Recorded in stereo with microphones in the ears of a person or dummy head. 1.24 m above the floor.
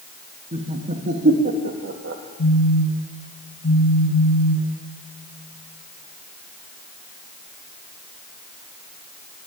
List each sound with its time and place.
0.5 s laughter: 35° right (ahead or behind), 2 m; by 2.2 s 60° right (ahead or behind), 2 m
2.4 s a phone buzzing: 70° left (ahead or behind), 2 m